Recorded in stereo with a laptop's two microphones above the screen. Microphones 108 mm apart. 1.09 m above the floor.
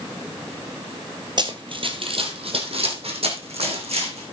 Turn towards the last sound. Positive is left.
turn(degrees=-70)  # may be behind; listen again after turning